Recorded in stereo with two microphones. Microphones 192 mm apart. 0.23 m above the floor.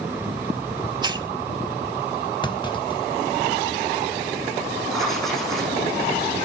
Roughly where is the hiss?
Right.